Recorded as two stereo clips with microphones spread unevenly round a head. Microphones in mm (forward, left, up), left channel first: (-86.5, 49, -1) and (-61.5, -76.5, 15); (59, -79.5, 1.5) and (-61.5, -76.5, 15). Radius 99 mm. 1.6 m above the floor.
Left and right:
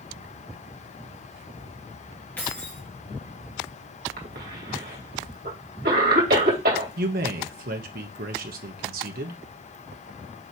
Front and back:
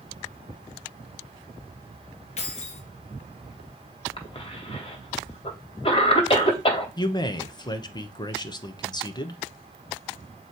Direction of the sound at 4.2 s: 45° right.